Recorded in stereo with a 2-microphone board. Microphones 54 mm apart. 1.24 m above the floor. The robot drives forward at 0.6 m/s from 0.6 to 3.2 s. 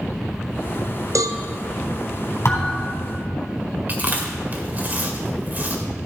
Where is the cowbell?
85° right, 0.7 m; by 1.4 s 70° right (ahead or behind), 0.7 m.